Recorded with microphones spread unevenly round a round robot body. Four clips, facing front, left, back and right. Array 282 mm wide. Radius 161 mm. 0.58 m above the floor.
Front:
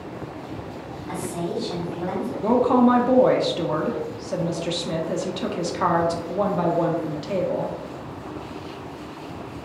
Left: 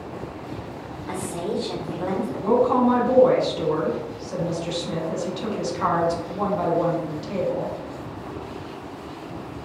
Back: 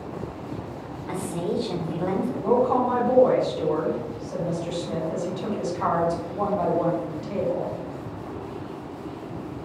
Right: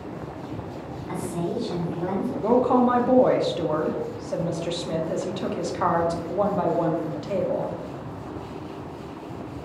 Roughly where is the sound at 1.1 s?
Behind left.